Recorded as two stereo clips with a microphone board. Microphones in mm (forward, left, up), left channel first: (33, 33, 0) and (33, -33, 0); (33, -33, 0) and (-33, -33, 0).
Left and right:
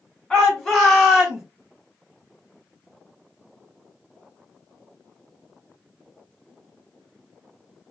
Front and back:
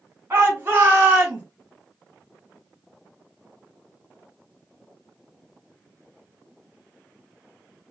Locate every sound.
0.3 s a shout: 160° left, 2.0 m; by 1.4 s 170° right, 1.7 m